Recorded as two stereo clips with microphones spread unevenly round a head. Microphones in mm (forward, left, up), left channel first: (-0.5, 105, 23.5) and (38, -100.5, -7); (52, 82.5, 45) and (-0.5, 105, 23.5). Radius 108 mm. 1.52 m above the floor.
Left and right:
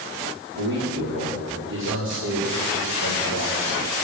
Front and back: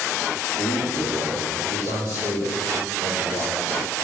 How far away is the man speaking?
About 4.5 m.